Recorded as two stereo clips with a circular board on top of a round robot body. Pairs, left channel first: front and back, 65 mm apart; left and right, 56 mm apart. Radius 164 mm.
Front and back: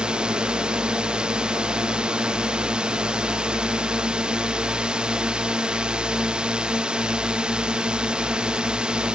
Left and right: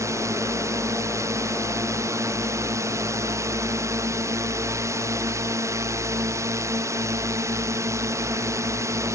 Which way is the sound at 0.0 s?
105° right.